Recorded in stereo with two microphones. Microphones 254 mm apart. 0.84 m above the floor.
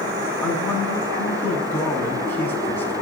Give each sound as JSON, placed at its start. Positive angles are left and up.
{"t": 0.4, "sound": "a man speaking", "side_deg": 10, "distance_m": 8.0}